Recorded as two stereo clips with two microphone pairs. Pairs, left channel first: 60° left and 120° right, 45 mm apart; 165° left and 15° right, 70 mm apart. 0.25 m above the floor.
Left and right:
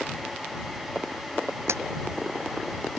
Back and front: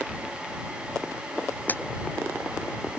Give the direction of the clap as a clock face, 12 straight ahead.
4 o'clock.